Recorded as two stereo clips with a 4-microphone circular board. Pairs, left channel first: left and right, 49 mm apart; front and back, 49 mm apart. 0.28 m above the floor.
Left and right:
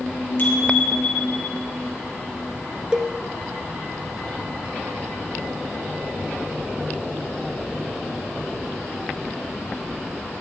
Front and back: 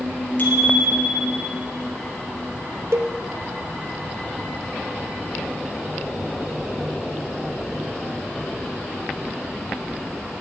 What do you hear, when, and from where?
0.4 s a bicycle bell: 50° left, 4 m
2.9 s a cowbell: 160° right, 1.3 m